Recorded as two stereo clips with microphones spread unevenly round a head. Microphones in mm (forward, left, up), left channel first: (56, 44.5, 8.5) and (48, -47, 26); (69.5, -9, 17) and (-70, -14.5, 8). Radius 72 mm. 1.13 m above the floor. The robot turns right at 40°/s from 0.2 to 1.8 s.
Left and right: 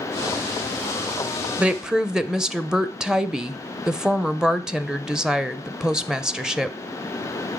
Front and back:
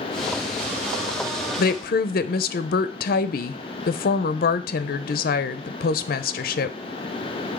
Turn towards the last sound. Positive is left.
turn(degrees=-5)